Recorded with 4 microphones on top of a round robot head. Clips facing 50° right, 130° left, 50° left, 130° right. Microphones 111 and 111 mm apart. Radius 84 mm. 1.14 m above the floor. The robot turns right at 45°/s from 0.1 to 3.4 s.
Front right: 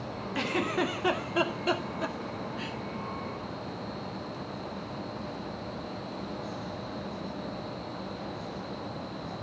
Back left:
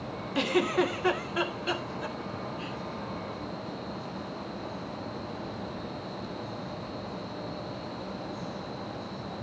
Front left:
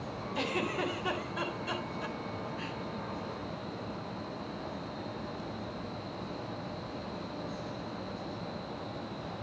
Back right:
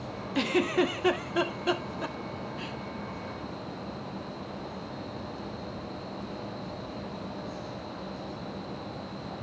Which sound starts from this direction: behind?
A giggle, at 0.3 s.